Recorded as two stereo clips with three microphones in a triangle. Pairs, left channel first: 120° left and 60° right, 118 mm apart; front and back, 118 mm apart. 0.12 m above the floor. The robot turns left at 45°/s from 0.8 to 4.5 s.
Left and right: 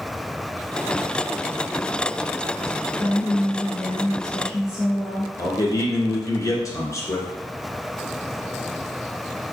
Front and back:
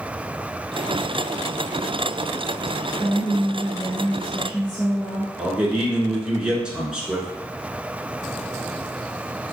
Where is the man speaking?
105° left, 1.4 m.